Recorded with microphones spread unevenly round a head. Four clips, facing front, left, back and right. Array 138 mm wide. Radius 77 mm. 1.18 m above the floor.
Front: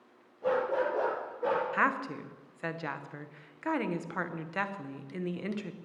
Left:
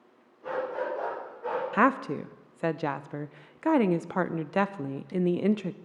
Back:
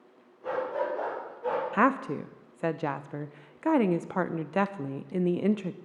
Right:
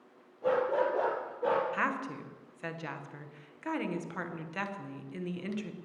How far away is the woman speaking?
About 0.6 m.